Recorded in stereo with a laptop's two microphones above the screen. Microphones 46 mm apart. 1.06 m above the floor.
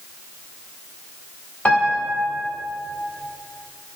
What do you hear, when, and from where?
1.6 s a piano: 30° left (ahead or behind), 1.7 m